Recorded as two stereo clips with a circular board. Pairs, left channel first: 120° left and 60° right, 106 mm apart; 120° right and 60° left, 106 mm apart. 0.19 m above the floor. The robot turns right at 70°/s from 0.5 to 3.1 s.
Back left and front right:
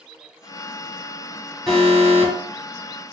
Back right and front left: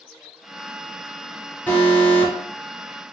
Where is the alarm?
160° right, 1.6 m; by 2.3 s 110° right, 1.6 m.